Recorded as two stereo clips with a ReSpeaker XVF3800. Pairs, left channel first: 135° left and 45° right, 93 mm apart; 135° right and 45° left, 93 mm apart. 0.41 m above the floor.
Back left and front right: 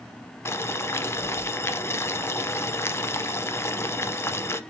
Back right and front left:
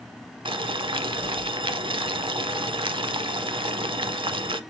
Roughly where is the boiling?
Left.